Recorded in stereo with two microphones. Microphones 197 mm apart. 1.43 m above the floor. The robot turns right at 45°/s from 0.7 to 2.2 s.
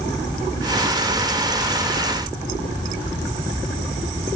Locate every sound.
Only background noise.